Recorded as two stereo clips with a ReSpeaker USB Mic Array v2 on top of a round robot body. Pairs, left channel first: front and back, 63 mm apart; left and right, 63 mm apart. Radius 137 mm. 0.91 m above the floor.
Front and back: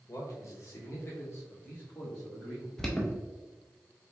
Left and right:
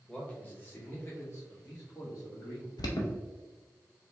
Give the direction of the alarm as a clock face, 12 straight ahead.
9 o'clock.